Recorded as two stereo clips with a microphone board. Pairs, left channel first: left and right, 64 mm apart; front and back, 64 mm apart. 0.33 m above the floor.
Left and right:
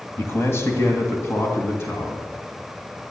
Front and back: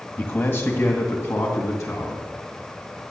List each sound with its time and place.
0.2 s a man speaking: 50° left, 1.8 m; by 2.2 s 40° left, 4 m